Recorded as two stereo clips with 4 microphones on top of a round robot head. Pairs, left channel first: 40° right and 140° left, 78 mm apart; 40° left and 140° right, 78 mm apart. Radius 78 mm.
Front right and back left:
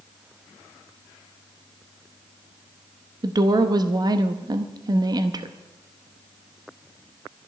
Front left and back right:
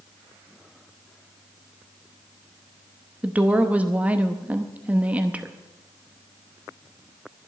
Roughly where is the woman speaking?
Behind left.